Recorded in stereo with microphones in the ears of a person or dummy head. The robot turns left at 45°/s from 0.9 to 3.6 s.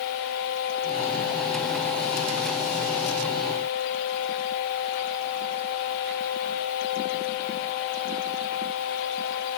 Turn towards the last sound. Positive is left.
No sound to turn to.